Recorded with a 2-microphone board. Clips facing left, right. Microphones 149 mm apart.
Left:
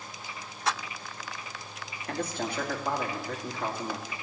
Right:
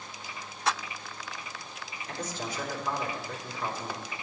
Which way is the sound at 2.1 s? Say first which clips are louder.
Left 4 dB; 60° left (ahead or behind).